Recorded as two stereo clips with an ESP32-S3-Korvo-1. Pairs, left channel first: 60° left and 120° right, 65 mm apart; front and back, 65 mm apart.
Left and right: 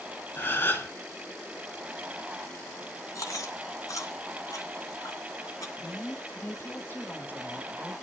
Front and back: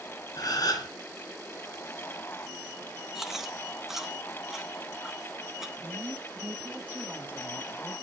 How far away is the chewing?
About 2.0 m.